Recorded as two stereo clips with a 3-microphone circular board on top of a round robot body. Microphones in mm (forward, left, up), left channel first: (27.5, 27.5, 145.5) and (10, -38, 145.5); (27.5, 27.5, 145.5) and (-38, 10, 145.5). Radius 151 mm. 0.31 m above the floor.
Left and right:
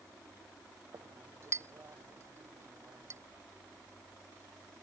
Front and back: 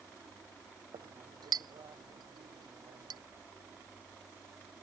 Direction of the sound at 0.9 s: 155° right.